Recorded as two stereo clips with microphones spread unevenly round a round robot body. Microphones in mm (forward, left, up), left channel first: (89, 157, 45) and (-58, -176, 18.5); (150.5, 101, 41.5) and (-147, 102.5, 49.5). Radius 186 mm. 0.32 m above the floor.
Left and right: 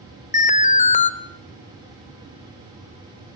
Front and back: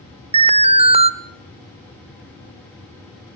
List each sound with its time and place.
0.3 s an alarm: 125° left, 1.1 m